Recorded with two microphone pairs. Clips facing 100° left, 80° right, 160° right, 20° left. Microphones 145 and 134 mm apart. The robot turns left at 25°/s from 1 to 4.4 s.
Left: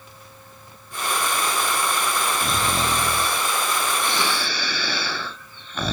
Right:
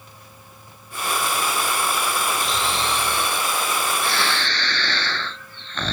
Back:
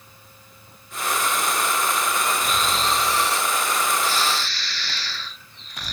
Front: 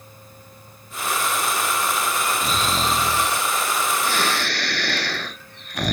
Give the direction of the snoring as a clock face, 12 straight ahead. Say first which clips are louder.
Left 1 dB, front 1 dB; 10 o'clock.